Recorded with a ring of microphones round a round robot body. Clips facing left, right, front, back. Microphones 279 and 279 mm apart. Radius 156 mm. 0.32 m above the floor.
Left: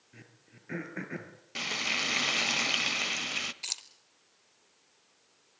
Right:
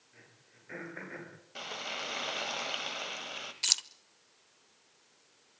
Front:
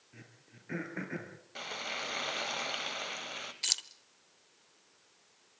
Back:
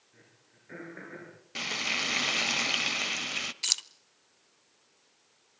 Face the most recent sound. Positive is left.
turn(degrees=-120)